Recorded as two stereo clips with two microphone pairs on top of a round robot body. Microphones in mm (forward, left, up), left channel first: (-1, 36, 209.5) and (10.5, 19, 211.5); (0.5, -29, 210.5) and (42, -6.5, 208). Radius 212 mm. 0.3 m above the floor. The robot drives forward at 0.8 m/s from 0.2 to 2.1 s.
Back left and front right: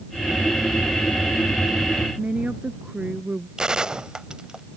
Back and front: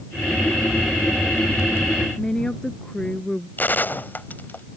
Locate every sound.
2.2 s a woman speaking: 80° right
3.6 s a gunshot: 105° right